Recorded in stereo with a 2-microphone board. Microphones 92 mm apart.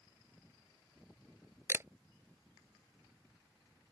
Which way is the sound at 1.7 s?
25° right (ahead or behind).